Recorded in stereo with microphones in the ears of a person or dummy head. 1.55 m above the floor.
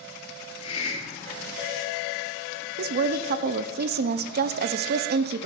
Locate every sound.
0.6 s a hiss: 35° left (ahead or behind), 3.5 m
2.8 s a woman speaking: 55° right (ahead or behind), 0.6 m